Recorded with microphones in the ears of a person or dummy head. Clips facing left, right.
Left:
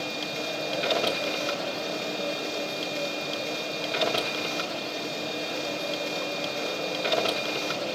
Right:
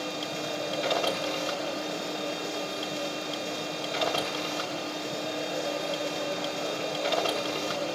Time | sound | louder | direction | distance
0.0 | a machine running | left 1 dB | 30° left (ahead or behind) | 1.4 m